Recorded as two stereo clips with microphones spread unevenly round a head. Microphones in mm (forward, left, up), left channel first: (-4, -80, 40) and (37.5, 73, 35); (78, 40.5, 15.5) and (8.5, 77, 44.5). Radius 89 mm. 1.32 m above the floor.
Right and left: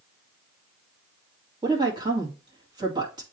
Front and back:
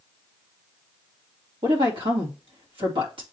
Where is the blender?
No blender in this recording.